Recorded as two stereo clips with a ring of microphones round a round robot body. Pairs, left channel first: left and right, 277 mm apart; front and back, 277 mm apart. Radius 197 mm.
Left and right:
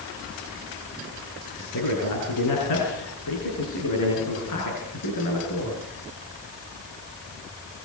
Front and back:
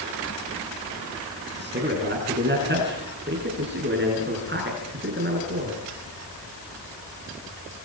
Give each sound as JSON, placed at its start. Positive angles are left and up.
{"t": 1.6, "sound": "a man speaking", "azimuth_deg": 130, "distance_m": 7.0}